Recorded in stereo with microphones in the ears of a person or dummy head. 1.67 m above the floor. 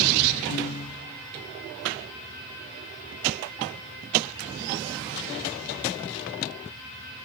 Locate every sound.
0.5 s a piano: 45° left (ahead or behind), 0.8 m